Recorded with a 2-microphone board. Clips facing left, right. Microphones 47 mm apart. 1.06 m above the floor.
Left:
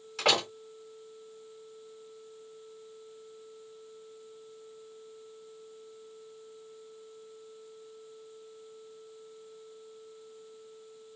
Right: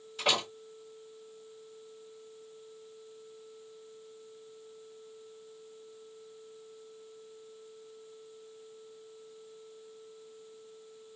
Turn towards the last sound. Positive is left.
turn(degrees=75)  # may be behind; listen again after turning